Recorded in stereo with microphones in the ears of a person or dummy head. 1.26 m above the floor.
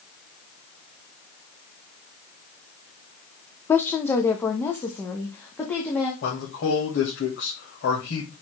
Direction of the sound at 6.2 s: 75° left (ahead or behind).